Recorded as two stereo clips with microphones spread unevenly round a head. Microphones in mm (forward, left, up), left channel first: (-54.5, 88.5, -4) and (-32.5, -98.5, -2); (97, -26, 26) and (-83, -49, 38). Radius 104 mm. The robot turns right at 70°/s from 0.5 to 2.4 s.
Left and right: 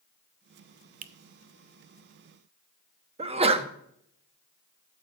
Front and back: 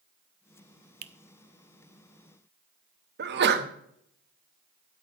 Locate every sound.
1.0 s a finger snap: 130° right, 0.6 m; by 1.1 s 125° right, 0.6 m
3.2 s a sneeze: 145° right, 1.1 m